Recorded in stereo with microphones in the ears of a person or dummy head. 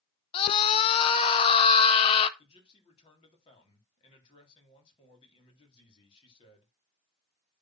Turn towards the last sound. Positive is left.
turn(degrees=30)  # may be behind; listen again after turning